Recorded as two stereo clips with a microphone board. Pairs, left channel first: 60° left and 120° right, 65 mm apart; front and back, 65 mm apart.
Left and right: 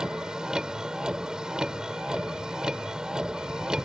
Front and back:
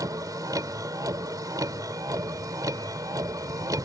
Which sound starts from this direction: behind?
A vehicle, at 0.0 s.